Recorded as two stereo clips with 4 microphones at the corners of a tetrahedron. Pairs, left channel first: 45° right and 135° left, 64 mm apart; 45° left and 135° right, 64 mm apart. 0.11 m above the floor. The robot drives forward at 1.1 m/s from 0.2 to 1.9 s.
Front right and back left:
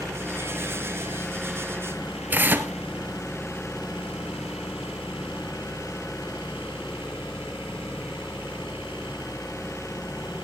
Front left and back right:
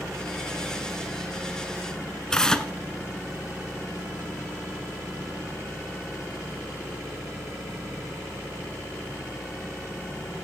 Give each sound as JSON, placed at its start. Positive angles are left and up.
{"t": 2.3, "sound": "tearing paper", "azimuth_deg": 120, "distance_m": 1.2}